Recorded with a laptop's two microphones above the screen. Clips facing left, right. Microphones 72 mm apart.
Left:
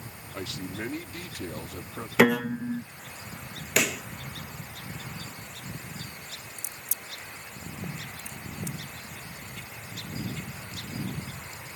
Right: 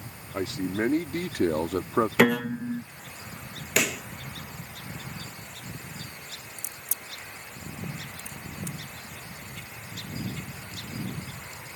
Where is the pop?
5° left (ahead or behind).